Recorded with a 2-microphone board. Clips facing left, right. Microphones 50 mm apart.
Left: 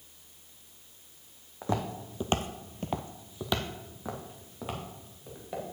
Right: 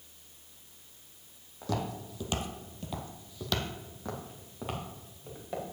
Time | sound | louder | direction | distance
1.6 | footsteps | left 2 dB | 25° left (ahead or behind) | 1.2 m